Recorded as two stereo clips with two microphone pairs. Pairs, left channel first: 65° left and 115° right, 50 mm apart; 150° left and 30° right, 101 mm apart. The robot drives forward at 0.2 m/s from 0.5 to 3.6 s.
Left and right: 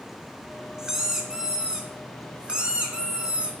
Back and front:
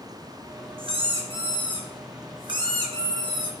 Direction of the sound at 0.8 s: 45° right.